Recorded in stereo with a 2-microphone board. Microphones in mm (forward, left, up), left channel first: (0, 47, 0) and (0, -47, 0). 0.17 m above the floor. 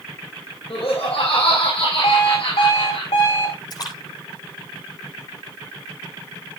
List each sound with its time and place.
0.7 s laughter: 80° left, 7.5 m
2.0 s an alarm clock: 85° left, 5.5 m
3.7 s a splash: 45° left (ahead or behind), 8 m